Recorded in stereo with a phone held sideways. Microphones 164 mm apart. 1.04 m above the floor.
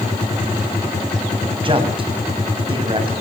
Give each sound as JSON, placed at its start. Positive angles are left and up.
{"t": 1.6, "sound": "a man speaking", "side_deg": -35, "distance_m": 6.0}